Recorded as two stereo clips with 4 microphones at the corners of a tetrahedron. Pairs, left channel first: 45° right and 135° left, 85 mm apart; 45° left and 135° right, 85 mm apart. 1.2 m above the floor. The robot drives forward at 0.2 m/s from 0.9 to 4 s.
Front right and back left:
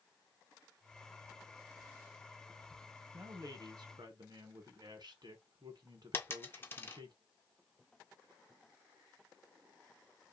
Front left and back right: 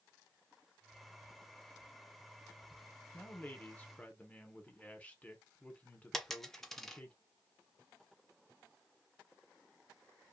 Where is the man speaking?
105° left, 0.9 m; by 7.1 s 115° left, 1.0 m.